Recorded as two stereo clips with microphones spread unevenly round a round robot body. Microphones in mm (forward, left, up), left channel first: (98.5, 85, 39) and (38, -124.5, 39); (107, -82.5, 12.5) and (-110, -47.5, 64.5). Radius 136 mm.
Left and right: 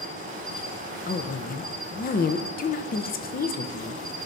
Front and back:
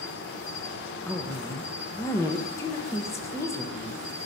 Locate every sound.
0.0 s an insect: 50° right, 1.2 m
1.1 s a woman speaking: 45° left, 0.8 m